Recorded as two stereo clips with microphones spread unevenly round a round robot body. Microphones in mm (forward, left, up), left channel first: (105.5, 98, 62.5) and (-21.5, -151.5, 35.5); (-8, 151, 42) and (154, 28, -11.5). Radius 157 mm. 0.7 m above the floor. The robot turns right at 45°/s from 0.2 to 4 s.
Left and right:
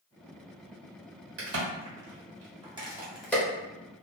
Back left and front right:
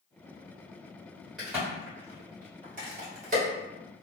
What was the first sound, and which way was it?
A crack, 115° right.